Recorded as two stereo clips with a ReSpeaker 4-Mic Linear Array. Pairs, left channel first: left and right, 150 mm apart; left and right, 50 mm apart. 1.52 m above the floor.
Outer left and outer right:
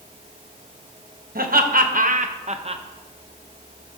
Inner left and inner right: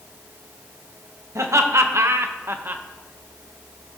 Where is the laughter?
75° right (ahead or behind), 1.1 m; by 2.8 s 35° right (ahead or behind), 0.7 m.